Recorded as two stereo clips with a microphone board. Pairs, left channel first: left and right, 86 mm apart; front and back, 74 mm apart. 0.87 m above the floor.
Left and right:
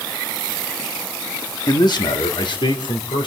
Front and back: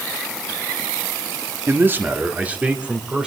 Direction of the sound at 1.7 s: 125° left.